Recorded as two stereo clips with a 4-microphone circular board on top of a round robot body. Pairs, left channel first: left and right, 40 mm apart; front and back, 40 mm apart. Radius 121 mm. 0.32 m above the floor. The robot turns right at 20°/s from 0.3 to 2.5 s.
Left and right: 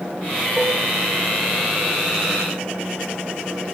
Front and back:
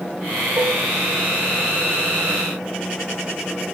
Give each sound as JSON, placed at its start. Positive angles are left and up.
{"t": 0.6, "sound": "dishes clattering", "azimuth_deg": -160, "distance_m": 7.0}